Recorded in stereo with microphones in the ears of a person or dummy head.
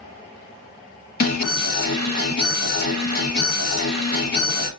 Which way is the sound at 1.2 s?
60° left (ahead or behind).